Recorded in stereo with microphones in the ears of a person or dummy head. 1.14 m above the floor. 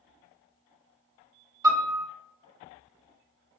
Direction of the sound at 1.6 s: 20° right (ahead or behind).